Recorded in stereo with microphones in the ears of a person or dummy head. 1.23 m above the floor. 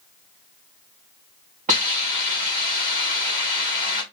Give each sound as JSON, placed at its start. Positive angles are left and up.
{"t": 1.7, "sound": "a hiss", "side_deg": -40, "distance_m": 4.0}